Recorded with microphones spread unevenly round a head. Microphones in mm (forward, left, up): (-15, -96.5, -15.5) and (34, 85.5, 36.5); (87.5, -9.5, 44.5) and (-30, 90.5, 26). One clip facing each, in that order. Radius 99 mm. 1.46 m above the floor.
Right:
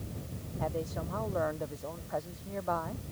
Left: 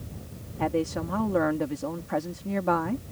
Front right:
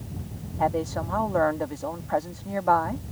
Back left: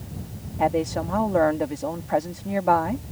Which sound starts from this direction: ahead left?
A woman speaking, at 0.6 s.